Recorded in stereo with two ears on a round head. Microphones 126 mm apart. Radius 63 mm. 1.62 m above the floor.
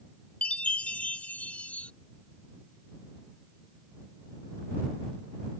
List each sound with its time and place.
0.4 s a chime: 10° left (ahead or behind)